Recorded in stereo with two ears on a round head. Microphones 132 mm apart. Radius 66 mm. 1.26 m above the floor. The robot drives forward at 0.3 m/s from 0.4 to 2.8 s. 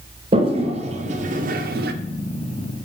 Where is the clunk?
No clunk in this recording.